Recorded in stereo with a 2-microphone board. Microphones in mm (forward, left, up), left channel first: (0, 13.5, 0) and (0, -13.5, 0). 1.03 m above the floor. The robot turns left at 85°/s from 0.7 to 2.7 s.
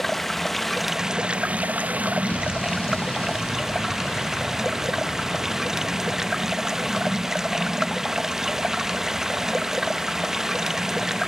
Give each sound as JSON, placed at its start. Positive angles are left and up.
{"t": 0.0, "sound": "running water", "azimuth_deg": 10, "distance_m": 0.9}
{"t": 2.3, "sound": "an explosion", "azimuth_deg": 120, "distance_m": 2.5}